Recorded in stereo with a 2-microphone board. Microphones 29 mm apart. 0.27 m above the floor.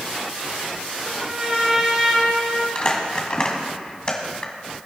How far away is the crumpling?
About 1.9 m.